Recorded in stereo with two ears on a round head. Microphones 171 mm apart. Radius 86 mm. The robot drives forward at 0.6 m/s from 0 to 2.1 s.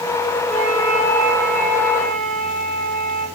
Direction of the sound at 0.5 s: 5° left (ahead or behind).